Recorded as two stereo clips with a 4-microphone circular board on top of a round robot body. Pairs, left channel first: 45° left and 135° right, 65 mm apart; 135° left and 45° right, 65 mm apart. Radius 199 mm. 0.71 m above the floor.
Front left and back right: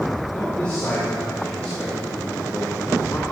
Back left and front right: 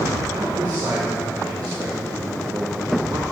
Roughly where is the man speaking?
Ahead right.